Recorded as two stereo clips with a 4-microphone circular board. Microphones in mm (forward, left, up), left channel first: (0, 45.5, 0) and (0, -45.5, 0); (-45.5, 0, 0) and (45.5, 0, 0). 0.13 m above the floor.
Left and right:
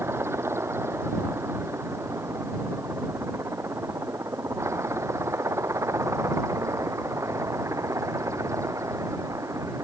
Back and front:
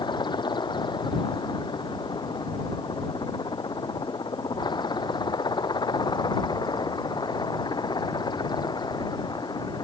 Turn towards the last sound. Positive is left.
turn(degrees=-145)